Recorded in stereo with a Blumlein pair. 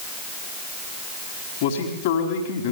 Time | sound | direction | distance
1.6 | a man speaking | 50° left | 5 m